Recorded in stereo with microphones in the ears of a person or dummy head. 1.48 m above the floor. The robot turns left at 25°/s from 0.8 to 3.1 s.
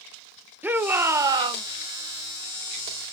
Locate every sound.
0.6 s a shout: 10° right (ahead or behind), 0.5 m; by 1.6 s 30° right (ahead or behind), 0.5 m